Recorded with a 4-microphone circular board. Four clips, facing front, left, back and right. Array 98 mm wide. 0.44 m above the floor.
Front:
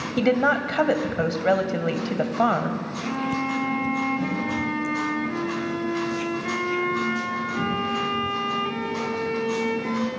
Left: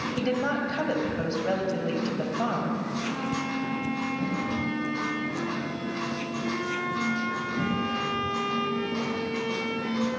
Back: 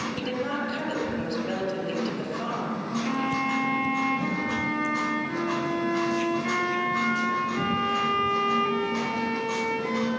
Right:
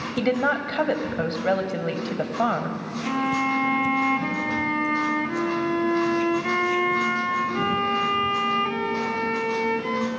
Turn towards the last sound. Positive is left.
turn(degrees=-90)